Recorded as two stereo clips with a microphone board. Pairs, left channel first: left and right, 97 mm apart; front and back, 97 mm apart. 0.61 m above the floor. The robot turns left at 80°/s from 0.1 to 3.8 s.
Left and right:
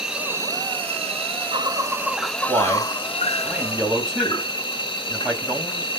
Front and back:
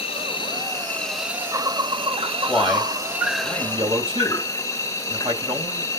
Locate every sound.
0.0 s an insect: 5° right, 0.8 m; by 6.0 s 60° left, 0.8 m
2.5 s a man speaking: 80° right, 3.5 m; by 5.9 s 175° left, 3.5 m